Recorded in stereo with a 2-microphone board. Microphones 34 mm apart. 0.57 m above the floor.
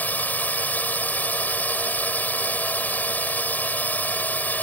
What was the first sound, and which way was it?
A drone, 60° left (ahead or behind).